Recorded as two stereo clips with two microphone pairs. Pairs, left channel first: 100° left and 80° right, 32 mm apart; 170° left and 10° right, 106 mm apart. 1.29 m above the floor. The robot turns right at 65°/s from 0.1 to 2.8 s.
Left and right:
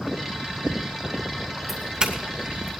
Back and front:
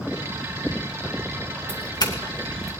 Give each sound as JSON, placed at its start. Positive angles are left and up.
{"t": 1.7, "sound": "a doorbell", "azimuth_deg": -165, "distance_m": 2.5}